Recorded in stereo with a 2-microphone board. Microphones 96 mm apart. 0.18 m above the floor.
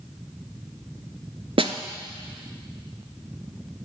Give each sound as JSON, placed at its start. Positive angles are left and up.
{"t": 1.6, "sound": "a snare drum", "side_deg": -75, "distance_m": 0.7}